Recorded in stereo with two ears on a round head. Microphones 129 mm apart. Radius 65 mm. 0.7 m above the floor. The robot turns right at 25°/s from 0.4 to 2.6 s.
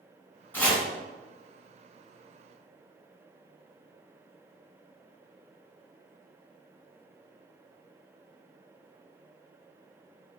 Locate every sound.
0.5 s chopping: 10° left (ahead or behind), 1.4 m; by 0.8 s 5° left (ahead or behind), 1.4 m